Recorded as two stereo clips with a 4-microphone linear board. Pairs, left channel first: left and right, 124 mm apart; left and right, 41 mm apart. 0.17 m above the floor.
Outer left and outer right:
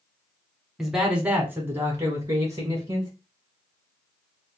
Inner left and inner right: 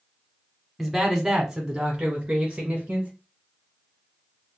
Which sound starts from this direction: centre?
A man speaking, at 0.8 s.